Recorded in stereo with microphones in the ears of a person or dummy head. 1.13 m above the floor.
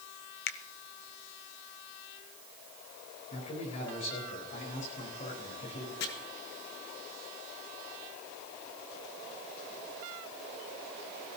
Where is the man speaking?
40° left (ahead or behind), 4 m.